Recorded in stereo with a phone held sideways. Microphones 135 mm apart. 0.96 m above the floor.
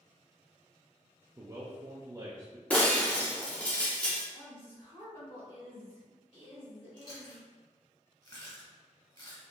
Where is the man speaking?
25° right (ahead or behind), 0.5 m.